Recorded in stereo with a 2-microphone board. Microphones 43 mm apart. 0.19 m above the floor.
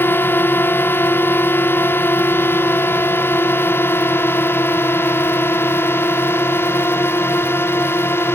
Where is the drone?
60° left (ahead or behind); by 8.4 s 65° left (ahead or behind).